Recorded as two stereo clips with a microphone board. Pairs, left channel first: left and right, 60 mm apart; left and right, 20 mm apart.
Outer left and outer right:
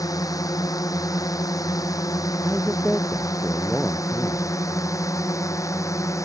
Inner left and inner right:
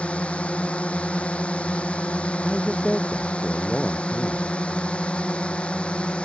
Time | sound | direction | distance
0.0 | a drone | 75° left (ahead or behind) | ?
2.4 | a man speaking | 15° left (ahead or behind) | ?